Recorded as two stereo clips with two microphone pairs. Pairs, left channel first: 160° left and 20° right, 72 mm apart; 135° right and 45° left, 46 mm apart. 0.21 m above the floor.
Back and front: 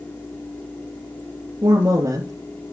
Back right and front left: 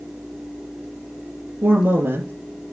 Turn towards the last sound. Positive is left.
turn(degrees=20)